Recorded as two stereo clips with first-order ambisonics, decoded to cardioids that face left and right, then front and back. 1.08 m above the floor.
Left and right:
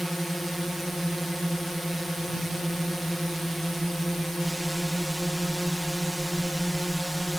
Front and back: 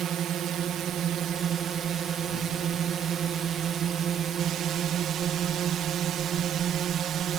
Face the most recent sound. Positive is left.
turn(degrees=180)